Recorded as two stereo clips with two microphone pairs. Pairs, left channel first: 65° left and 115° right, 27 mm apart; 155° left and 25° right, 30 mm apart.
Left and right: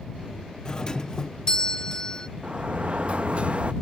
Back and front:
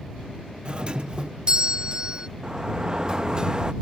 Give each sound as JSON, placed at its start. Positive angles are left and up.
{"t": 0.7, "sound": "a doorbell", "azimuth_deg": 15}
{"t": 2.4, "sound": "a sliding door", "azimuth_deg": -85}